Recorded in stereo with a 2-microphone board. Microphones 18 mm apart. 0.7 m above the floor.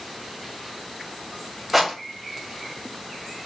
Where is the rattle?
5° right (ahead or behind), 1.5 m.